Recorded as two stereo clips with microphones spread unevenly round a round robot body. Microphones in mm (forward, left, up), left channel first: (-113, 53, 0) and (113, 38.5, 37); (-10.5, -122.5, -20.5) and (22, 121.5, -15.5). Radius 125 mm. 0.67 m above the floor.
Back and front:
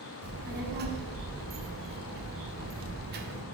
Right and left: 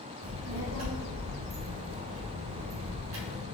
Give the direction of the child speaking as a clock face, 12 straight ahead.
10 o'clock.